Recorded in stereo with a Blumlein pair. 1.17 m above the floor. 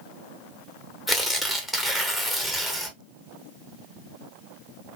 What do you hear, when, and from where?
1.1 s tearing paper: straight ahead, 0.8 m